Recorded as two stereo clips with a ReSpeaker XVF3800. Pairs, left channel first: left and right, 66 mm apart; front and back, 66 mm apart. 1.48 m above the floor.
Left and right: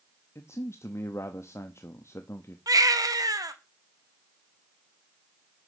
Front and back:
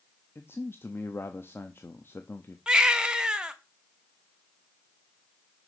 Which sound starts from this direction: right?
A baby crying, at 2.7 s.